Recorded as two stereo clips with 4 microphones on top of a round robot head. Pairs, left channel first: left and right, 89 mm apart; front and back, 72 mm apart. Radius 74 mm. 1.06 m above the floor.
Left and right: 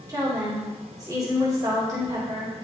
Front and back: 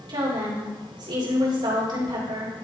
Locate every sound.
0.1 s a woman speaking: 150° right, 2.5 m